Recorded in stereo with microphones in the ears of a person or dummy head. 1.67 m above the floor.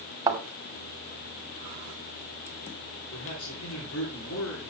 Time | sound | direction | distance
0.3 | a thud | 20° right (ahead or behind) | 2 m
3.1 | a man speaking | 85° left | 5 m